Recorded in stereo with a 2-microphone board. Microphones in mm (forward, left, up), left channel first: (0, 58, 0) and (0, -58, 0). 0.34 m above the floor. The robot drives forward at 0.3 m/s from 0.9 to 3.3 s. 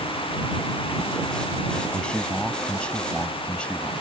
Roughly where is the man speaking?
Centre.